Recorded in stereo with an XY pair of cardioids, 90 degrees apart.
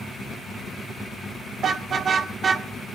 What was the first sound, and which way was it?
A car horn, 60° right.